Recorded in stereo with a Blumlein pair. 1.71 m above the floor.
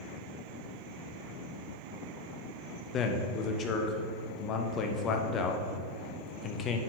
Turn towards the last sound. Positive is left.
turn(degrees=30)